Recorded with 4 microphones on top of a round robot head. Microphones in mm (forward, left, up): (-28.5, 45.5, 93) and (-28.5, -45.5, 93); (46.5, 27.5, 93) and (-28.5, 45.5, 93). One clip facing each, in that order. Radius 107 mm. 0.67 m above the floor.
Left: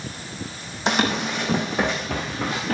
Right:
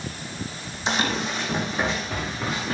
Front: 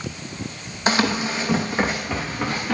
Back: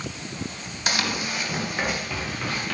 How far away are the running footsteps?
About 2.5 m.